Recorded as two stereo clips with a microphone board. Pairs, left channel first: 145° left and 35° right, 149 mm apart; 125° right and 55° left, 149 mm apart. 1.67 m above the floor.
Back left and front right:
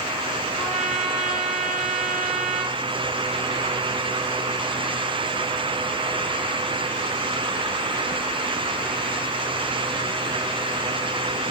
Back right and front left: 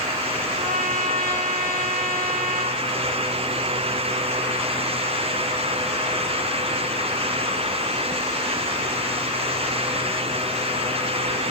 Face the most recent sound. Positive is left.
turn(degrees=55)